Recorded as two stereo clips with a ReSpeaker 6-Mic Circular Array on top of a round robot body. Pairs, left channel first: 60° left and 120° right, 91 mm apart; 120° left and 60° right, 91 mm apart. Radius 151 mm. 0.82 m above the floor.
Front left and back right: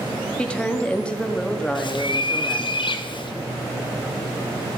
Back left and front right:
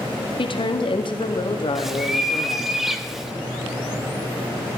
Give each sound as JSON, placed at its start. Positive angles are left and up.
{"t": 0.4, "sound": "a woman speaking", "azimuth_deg": 140, "distance_m": 1.9}
{"t": 1.8, "sound": "a bird", "azimuth_deg": 25, "distance_m": 1.3}